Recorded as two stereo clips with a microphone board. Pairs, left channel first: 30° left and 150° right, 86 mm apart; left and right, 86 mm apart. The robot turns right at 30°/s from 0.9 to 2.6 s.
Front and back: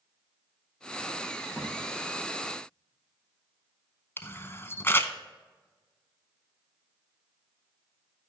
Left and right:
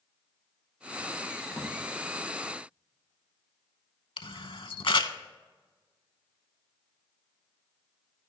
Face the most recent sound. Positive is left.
turn(degrees=90)